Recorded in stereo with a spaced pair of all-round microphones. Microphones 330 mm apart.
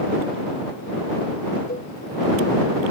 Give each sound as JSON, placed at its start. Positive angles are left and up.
{"t": 1.7, "sound": "a cowbell", "side_deg": 25}